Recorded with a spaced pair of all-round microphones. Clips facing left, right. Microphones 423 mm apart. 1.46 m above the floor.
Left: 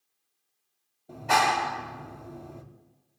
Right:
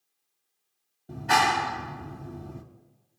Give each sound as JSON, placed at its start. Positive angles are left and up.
{"t": 1.1, "sound": "a clap", "side_deg": -30, "distance_m": 0.7}